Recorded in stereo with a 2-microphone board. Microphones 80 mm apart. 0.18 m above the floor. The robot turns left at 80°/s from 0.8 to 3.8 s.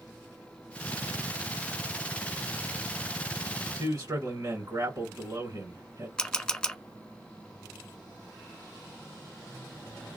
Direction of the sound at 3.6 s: 40° right (ahead or behind).